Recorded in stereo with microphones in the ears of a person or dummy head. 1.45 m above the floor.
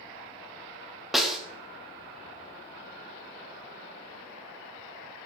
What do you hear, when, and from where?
1.1 s a snare drum: centre (ahead or behind), 0.8 m